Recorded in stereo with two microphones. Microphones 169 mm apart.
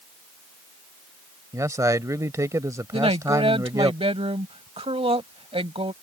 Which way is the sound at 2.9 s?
35° right (ahead or behind).